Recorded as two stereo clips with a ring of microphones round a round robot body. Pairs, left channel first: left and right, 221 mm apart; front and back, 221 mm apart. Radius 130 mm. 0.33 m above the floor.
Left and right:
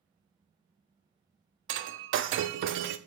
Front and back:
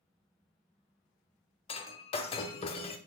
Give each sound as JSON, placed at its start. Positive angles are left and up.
{"t": 1.7, "sound": "breaking glass", "azimuth_deg": -65, "distance_m": 0.5}